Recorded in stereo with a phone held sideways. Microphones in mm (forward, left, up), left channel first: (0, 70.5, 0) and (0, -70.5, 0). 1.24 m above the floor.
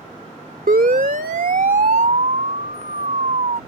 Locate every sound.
0.7 s a siren: 80° right; by 3.6 s 60° right (ahead or behind)